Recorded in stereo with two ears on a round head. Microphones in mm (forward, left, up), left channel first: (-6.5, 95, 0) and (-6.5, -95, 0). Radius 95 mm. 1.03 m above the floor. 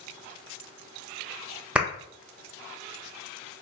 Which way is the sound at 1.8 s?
5° right (ahead or behind).